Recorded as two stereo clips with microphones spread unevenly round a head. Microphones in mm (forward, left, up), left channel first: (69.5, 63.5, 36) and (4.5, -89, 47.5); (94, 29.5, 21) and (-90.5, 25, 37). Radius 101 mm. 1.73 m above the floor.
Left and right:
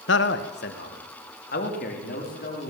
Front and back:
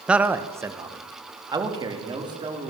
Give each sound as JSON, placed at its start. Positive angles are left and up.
{"t": 0.1, "sound": "a man speaking", "azimuth_deg": 95, "distance_m": 1.4}